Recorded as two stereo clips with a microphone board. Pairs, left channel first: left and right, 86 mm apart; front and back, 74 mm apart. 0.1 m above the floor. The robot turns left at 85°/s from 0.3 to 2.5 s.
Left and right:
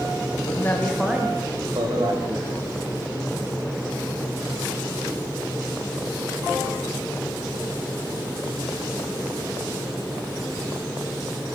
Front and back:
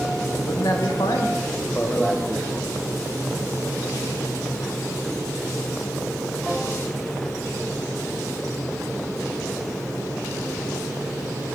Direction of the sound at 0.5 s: 45° left.